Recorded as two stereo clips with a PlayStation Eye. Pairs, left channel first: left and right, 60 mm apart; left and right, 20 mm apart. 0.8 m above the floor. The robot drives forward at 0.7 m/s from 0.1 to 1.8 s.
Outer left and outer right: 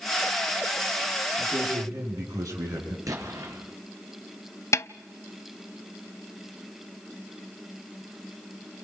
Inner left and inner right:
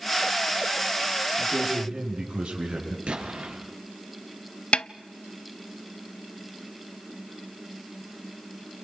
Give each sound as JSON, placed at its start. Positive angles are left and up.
{"t": 1.4, "sound": "a man speaking", "side_deg": -70, "distance_m": 9.5}
{"t": 3.1, "sound": "an explosion", "side_deg": -70, "distance_m": 5.0}
{"t": 4.7, "sound": "a snare drum", "side_deg": 50, "distance_m": 0.5}